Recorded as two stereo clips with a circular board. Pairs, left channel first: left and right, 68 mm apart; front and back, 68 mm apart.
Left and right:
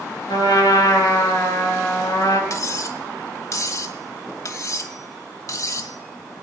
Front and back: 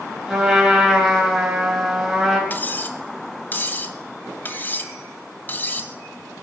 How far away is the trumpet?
About 5.5 m.